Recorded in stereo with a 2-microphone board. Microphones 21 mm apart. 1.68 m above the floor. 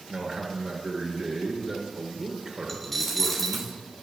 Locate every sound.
0.1 s a man speaking: 40° right (ahead or behind), 2 m
2.7 s a dropped coin: 10° left (ahead or behind), 1.0 m